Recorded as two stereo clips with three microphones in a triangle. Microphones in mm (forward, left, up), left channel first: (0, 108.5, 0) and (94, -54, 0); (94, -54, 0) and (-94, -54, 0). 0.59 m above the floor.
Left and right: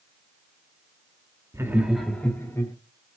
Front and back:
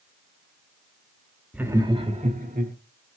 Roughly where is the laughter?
Right.